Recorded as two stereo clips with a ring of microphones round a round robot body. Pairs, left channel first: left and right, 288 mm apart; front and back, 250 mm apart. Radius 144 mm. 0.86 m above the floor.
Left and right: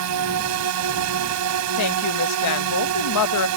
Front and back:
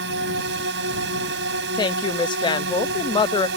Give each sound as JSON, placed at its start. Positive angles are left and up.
{"t": 0.0, "sound": "a drone", "azimuth_deg": -125}
{"t": 1.8, "sound": "a woman speaking", "azimuth_deg": 70}